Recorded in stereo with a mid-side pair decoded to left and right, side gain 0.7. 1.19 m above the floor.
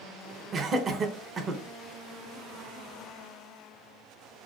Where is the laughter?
30° right, 0.7 m.